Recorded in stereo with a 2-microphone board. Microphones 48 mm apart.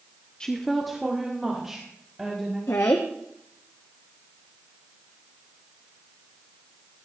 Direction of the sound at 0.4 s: 20° left (ahead or behind).